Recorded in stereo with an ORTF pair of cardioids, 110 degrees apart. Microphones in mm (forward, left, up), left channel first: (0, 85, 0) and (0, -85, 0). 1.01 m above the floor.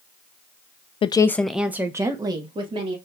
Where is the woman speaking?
35° left, 0.5 m; by 3.0 s 30° right, 1.8 m.